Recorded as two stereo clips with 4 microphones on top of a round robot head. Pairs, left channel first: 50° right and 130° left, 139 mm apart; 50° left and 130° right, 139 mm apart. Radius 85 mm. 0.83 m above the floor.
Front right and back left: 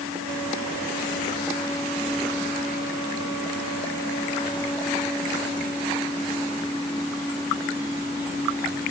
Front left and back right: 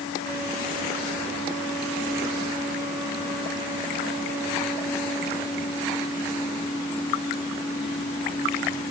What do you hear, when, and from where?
Only background noise.